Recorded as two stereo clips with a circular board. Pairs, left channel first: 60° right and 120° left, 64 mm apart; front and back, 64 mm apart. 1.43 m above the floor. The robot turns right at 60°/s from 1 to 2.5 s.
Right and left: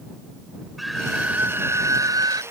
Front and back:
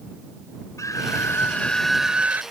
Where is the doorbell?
I don't hear a doorbell.